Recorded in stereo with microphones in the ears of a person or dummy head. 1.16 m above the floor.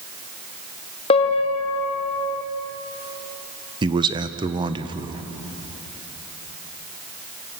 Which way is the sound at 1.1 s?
30° left (ahead or behind).